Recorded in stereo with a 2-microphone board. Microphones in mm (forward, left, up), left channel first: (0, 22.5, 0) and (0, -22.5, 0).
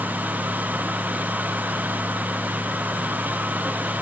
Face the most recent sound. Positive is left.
No sound to turn to.